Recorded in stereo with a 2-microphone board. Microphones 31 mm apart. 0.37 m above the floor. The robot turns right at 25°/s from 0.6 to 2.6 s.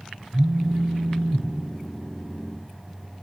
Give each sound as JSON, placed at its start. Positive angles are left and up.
{"t": 0.3, "sound": "a phone buzzing", "side_deg": -75, "distance_m": 0.6}